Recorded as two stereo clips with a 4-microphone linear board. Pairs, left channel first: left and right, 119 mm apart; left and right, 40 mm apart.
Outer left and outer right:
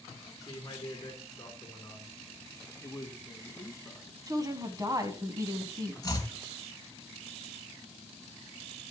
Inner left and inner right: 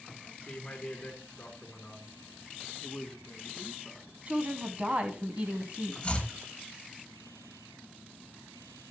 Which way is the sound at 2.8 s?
20° left (ahead or behind).